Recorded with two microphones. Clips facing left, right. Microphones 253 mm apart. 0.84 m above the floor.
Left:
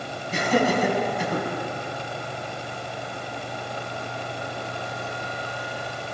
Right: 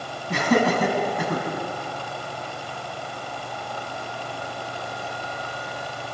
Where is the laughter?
70° right (ahead or behind), 6.5 m; by 1.4 s 60° right (ahead or behind), 6.5 m.